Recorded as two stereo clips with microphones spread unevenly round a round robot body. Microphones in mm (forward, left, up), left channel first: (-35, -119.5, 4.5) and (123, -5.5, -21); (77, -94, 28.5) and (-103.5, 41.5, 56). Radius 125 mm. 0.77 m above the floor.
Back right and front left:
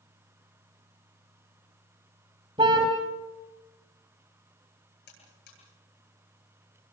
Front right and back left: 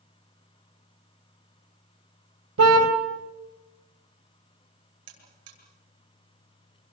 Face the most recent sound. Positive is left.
turn(degrees=165)